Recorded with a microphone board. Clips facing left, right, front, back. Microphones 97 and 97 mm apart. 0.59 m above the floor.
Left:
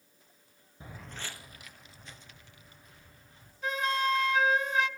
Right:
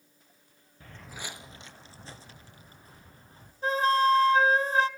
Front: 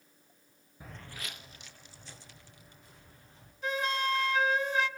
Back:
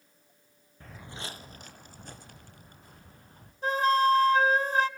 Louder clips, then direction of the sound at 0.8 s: Right 1 dB, back 3 dB; 60° left.